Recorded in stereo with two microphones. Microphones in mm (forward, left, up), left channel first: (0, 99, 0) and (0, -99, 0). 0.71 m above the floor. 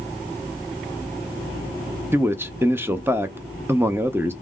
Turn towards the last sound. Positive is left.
turn(degrees=-10)  # may be behind; listen again after turning